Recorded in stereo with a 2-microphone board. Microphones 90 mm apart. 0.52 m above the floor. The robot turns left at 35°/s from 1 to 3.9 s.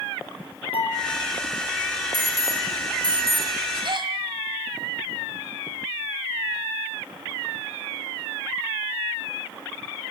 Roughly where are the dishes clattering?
Left.